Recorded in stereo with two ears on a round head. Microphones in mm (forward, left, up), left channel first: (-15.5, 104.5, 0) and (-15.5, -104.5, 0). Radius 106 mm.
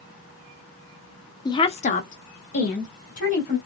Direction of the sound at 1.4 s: 15° left (ahead or behind).